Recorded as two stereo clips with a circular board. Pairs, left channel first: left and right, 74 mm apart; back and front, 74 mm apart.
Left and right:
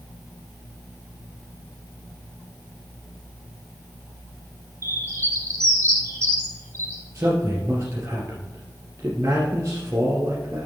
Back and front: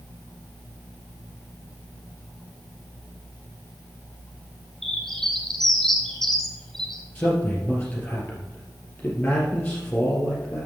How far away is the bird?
About 1.7 m.